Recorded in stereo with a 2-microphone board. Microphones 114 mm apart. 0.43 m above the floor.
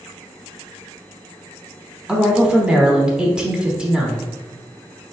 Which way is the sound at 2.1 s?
5° right (ahead or behind).